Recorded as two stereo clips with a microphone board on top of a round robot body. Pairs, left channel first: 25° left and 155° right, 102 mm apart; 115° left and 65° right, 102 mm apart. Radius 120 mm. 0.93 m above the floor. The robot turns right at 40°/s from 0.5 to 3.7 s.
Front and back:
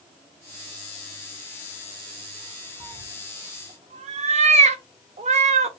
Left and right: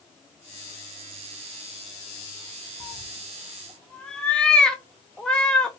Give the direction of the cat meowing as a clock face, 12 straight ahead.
7 o'clock.